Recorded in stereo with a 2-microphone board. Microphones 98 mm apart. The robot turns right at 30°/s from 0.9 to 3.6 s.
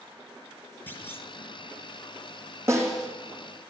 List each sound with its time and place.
0.9 s a clunk: 20° left (ahead or behind), 1.2 m
2.7 s a snare drum: 25° right (ahead or behind), 3 m; by 3.1 s 40° right (ahead or behind), 3 m